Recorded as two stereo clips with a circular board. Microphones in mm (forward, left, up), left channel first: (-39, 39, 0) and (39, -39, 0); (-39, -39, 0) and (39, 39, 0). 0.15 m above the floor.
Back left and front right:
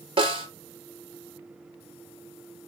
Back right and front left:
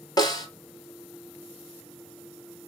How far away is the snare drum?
About 0.9 m.